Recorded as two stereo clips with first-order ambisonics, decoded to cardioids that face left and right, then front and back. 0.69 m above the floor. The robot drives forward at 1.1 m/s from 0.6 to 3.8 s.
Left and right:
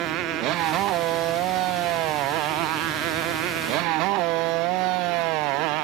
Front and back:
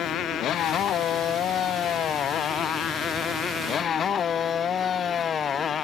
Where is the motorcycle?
50° right; by 5.8 s 65° right.